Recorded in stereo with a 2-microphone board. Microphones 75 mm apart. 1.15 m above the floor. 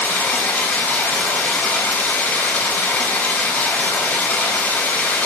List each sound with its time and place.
0.0 s running water: 25° left (ahead or behind), 4 m